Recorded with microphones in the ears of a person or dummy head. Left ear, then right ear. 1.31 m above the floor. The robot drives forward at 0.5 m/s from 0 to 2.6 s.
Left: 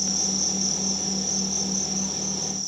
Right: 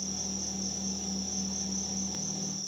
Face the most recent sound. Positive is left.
turn(degrees=50)  # may be behind; listen again after turning